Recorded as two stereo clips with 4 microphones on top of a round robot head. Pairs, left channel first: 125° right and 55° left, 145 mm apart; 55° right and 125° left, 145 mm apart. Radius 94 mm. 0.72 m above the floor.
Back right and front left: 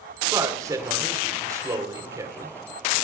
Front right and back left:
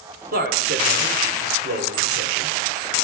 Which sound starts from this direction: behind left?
A man speaking, at 0.3 s.